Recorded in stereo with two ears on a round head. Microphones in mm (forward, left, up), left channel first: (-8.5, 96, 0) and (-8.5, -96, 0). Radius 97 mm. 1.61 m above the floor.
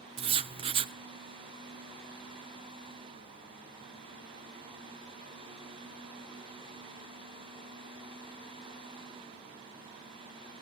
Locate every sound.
0.2 s writing: 30° right (ahead or behind), 0.8 m